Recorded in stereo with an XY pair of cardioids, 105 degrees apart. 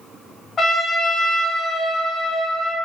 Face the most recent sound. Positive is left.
turn(degrees=50)